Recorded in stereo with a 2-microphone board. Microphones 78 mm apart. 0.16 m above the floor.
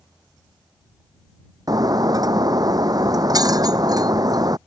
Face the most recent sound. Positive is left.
turn(degrees=-50)  # may be behind; listen again after turning